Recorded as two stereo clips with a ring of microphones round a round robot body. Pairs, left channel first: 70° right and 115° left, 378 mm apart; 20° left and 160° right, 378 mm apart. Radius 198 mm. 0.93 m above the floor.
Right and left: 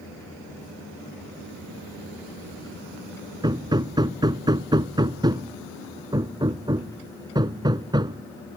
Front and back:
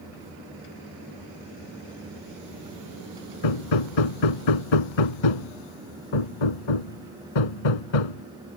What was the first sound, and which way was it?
Hammering, 35° left.